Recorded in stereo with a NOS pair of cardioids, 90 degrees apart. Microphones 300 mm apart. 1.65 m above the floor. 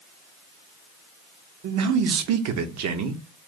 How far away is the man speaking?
About 0.7 m.